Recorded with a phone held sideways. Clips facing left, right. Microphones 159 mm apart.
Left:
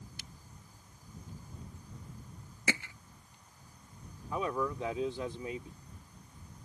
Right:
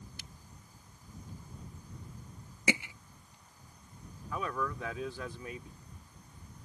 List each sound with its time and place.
2.7 s hammering: 15° right (ahead or behind)
4.3 s a man speaking: 25° left (ahead or behind)